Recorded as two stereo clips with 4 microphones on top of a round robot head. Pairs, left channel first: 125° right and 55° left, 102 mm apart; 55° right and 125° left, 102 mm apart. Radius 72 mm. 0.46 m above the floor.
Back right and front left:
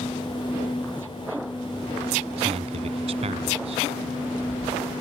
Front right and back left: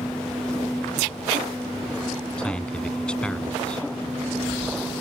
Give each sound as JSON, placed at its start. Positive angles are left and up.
{"t": 2.4, "sound": "a man speaking", "azimuth_deg": 25}